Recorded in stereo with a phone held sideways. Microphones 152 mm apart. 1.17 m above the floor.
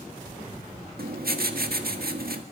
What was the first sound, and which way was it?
Writing, 85° right.